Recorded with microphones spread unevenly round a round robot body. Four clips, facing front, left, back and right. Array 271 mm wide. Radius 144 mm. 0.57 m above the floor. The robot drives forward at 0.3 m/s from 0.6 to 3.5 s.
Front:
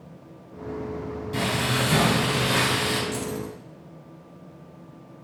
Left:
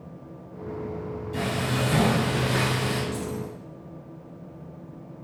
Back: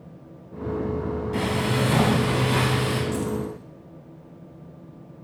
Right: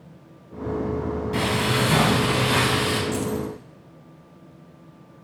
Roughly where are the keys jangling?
Right.